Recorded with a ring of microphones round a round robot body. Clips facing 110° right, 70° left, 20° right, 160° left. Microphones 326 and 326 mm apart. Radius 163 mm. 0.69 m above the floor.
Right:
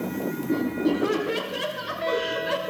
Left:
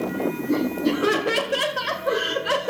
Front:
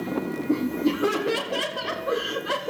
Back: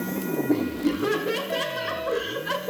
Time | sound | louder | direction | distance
0.5 | laughter | even, front 1 dB | 75° left | 3 m